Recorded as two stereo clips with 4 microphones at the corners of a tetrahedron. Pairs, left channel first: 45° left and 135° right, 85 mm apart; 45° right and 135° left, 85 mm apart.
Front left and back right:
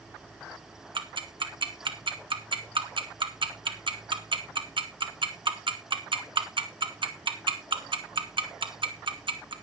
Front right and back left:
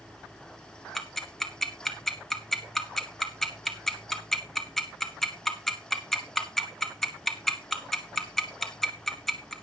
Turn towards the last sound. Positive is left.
turn(degrees=-130)